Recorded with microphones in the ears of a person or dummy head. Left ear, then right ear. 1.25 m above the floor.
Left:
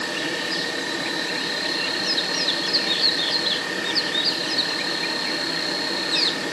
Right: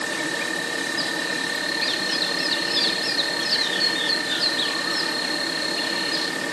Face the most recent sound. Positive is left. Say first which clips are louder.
# even
turn(degrees=-10)  # may be behind; listen again after turning